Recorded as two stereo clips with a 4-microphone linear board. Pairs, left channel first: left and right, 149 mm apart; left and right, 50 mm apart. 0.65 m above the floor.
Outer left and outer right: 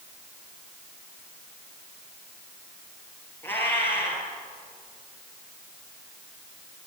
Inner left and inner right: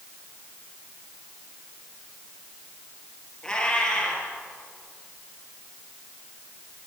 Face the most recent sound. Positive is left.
turn(degrees=15)  # may be behind; listen again after turning